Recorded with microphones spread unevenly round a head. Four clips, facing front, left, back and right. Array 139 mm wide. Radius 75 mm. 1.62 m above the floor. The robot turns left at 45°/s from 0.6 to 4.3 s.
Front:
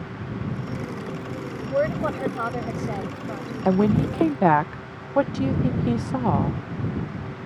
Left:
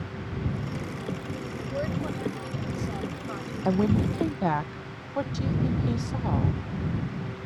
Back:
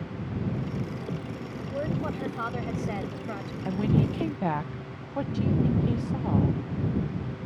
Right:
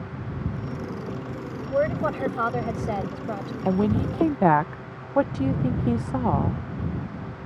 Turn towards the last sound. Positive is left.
turn(degrees=-40)